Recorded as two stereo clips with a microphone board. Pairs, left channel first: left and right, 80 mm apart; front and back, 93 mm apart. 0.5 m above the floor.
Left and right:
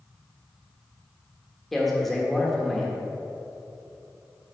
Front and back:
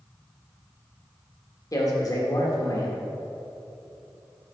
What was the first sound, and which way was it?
A man speaking, 5° left.